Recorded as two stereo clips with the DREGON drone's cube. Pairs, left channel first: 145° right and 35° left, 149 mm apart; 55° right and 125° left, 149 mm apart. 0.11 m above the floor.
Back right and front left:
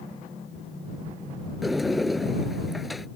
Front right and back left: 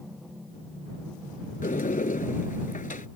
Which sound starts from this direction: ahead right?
A sliding door, at 1.6 s.